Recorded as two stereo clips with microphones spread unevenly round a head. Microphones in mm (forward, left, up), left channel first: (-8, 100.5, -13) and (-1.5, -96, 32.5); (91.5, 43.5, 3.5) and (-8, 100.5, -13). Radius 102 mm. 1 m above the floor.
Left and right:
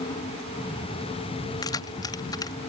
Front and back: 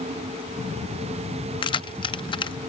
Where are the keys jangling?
15° left.